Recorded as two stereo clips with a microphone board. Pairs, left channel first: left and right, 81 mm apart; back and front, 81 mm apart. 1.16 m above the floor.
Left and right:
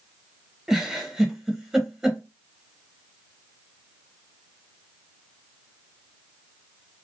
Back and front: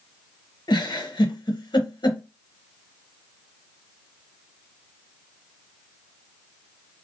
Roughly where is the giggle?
Behind.